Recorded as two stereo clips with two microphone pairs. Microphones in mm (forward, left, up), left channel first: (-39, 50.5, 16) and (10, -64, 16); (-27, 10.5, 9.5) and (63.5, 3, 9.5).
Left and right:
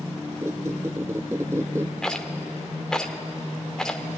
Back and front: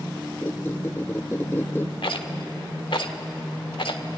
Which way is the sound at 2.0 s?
165° right.